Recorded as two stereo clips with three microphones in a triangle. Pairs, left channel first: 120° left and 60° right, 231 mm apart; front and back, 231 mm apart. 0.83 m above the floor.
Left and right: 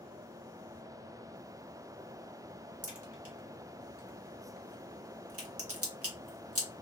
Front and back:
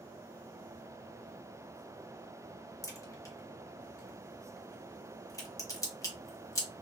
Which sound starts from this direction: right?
A crack, at 2.8 s.